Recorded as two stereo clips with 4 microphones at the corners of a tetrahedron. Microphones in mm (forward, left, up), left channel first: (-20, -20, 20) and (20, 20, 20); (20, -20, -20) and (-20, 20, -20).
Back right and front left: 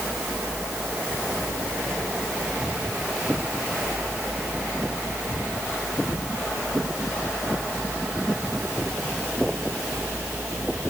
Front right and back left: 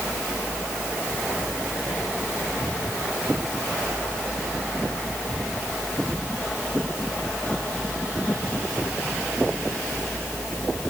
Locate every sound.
Only background noise.